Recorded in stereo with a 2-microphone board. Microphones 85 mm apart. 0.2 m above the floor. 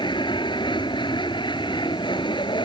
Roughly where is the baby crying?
No baby crying in this recording.